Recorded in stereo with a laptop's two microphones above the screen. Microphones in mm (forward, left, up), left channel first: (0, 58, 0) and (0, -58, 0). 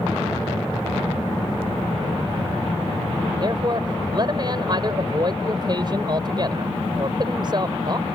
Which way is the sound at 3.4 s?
40° right (ahead or behind).